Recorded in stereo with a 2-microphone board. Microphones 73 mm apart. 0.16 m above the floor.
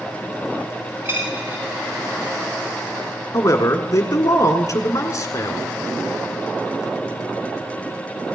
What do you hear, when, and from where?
1.1 s a dropped coin: 30° right (ahead or behind), 3 m
3.3 s a man speaking: 45° left (ahead or behind), 1.5 m